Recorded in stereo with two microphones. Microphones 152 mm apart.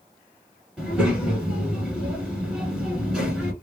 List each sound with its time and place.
0.8 s a child speaking: centre (ahead or behind), 1.1 m